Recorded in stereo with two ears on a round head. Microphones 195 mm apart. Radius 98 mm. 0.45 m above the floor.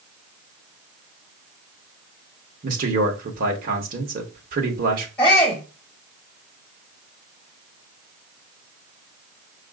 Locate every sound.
2.6 s a man speaking: 40° right (ahead or behind), 0.9 m
5.2 s a shout: 5° left (ahead or behind), 1.5 m